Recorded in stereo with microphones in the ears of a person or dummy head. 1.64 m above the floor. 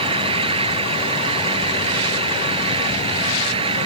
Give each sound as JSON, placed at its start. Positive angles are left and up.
{"t": 0.0, "sound": "an engine running", "side_deg": -40}